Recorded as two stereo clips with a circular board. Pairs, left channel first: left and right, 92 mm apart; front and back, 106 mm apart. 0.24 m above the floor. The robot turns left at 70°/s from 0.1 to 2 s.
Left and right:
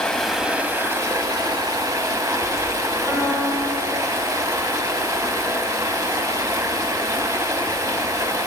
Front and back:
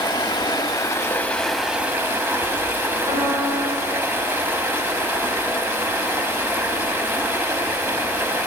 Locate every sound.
0.0 s running water: 10° left, 0.7 m; by 8.5 s 120° right, 0.7 m
3.1 s a piano: 155° left, 2.5 m